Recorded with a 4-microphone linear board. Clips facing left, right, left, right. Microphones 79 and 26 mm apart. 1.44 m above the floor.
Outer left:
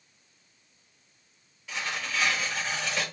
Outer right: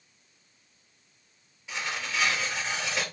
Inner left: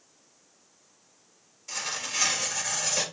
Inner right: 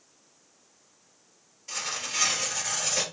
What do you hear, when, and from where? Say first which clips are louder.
1.7 s tearing paper: even, even; 20° right (ahead or behind), 3 m